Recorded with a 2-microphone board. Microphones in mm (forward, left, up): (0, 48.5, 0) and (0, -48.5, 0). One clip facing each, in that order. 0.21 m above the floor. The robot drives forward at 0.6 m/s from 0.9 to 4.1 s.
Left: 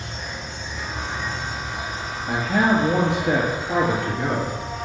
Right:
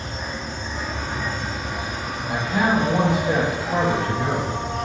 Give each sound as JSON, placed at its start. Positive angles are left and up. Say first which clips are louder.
{"t": 0.0, "sound": "an insect", "louder": "right 3 dB", "side_deg": -40, "distance_m": 2.5}
{"t": 2.3, "sound": "a man speaking", "louder": "left 2 dB", "side_deg": 65, "distance_m": 4.0}